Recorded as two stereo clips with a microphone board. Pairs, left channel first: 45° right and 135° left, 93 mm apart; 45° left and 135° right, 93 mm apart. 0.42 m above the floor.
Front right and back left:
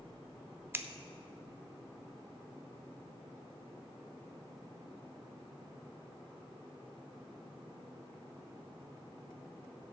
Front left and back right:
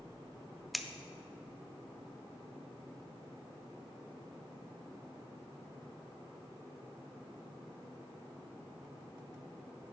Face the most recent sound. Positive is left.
turn(degrees=135)